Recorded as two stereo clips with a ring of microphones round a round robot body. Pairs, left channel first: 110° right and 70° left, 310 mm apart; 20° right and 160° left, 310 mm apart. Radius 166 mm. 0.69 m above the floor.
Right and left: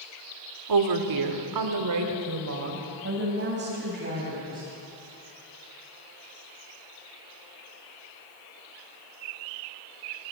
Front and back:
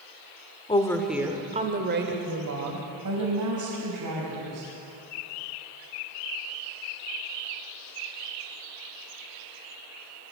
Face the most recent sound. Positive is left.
turn(degrees=130)